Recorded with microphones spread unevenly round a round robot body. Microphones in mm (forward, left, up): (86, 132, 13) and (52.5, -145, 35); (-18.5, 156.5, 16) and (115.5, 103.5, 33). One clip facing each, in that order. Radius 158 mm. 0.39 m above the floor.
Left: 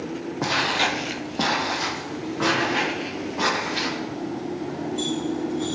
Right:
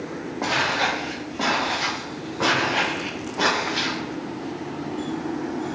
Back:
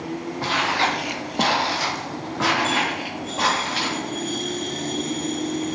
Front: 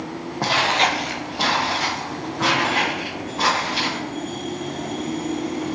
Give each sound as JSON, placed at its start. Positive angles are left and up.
{"t": 0.4, "sound": "footsteps", "azimuth_deg": 20, "distance_m": 1.0}